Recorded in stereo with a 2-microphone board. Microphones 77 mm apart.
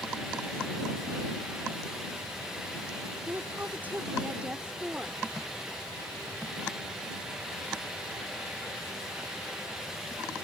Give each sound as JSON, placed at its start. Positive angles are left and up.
{"t": 3.3, "sound": "a woman speaking", "side_deg": -30}